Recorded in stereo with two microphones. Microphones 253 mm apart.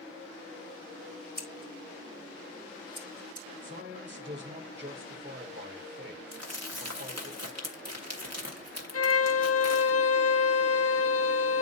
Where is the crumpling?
80° right, 1.6 m.